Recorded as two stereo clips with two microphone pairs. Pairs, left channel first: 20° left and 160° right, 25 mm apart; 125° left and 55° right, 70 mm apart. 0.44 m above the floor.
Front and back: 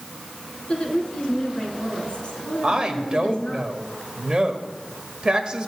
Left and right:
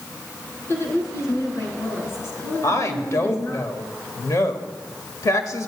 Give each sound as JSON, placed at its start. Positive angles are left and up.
{"t": 0.7, "sound": "a woman speaking", "azimuth_deg": 75, "distance_m": 4.0}
{"t": 2.6, "sound": "a woman speaking", "azimuth_deg": 155, "distance_m": 1.7}